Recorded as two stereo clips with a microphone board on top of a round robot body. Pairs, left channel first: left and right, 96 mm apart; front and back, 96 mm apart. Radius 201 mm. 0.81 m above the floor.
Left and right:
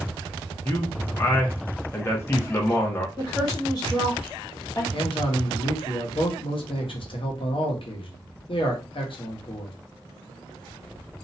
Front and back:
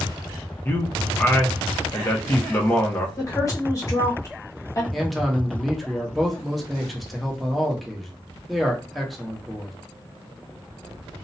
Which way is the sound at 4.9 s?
90° left.